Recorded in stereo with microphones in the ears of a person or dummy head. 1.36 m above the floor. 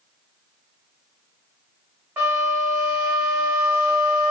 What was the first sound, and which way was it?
A flute, 5° right (ahead or behind).